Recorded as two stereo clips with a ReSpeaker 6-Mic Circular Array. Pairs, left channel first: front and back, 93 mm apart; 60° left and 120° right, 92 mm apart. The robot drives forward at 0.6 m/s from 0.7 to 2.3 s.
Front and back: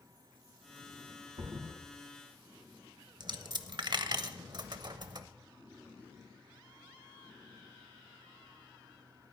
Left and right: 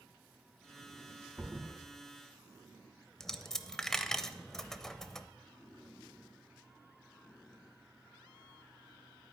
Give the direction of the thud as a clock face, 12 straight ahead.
7 o'clock.